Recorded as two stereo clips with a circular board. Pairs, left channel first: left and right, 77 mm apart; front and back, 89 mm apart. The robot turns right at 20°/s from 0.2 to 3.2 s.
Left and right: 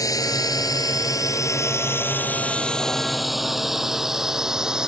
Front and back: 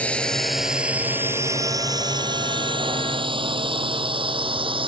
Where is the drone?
70° left; by 4.9 s 170° right.